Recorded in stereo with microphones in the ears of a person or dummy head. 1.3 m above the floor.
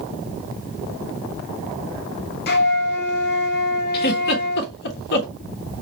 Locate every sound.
2.5 s a flute: 55° left (ahead or behind), 0.8 m
3.9 s a giggle: 60° left (ahead or behind), 1.3 m